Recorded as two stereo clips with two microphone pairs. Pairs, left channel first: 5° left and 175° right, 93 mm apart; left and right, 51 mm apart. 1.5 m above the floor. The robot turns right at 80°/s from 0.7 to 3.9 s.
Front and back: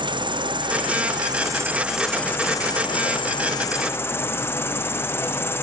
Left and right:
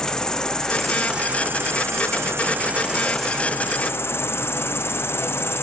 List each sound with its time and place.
0.0 s an insect: 170° left, 0.9 m; by 5.6 s 65° left, 0.9 m